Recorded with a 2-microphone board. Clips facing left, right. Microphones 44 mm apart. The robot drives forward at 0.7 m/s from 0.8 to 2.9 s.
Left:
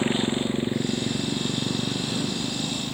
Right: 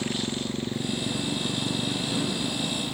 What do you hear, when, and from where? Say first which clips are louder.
0.0 s a motorcycle: left 6 dB; 25° left (ahead or behind); by 2.9 s 5° left (ahead or behind)